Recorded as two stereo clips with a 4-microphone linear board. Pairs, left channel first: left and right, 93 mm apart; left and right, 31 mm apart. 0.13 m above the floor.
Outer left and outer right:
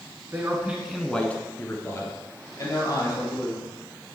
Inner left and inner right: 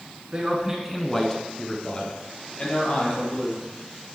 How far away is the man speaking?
About 1.2 m.